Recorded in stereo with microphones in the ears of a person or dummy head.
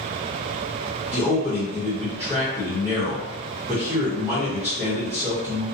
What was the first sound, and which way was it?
A man speaking, 5° right (ahead or behind).